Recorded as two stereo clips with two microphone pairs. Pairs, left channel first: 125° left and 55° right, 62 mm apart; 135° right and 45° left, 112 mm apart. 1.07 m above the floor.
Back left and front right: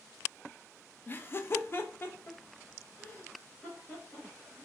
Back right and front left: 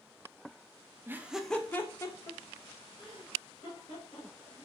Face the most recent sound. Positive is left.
turn(degrees=-170)